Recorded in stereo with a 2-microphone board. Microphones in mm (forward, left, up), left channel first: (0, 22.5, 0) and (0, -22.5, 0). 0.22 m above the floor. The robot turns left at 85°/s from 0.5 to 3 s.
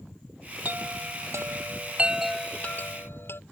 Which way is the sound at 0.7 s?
40° right (ahead or behind).